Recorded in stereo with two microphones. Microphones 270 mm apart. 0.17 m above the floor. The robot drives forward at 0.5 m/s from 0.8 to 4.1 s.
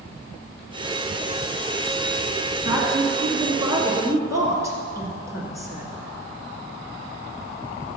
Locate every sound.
2.6 s a woman speaking: 15° right (ahead or behind), 1.3 m; by 5.9 s 10° right (ahead or behind), 1.8 m